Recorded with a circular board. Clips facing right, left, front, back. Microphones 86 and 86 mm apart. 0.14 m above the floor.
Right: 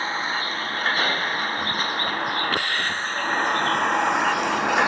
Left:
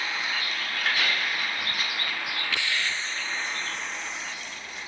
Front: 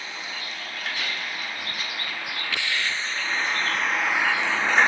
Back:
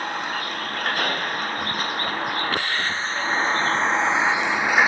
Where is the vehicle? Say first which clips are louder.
Right 5 dB, back 9 dB; 145° right; by 4.9 s 100° right.